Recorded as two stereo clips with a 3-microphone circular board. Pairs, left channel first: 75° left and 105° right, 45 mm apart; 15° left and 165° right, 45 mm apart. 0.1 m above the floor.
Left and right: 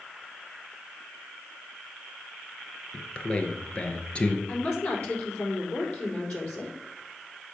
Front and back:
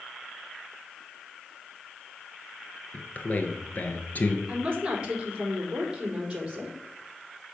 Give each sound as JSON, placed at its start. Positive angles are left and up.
{"t": 2.9, "sound": "a man speaking", "azimuth_deg": 25, "distance_m": 1.5}
{"t": 4.5, "sound": "a woman speaking", "azimuth_deg": 125, "distance_m": 4.5}